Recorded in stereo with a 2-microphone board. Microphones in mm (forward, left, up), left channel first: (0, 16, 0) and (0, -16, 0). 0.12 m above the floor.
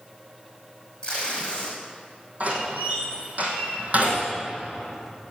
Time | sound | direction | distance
1.0 | tape being pulled | 30° left (ahead or behind) | 5 m
2.4 | a door slam | 50° right (ahead or behind) | 3.5 m